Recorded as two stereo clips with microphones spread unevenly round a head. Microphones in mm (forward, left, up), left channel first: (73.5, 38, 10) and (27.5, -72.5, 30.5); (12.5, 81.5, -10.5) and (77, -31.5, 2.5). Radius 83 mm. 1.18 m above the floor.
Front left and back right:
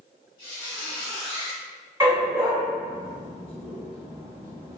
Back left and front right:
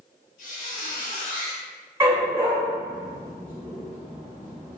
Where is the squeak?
135° left, 1.9 m.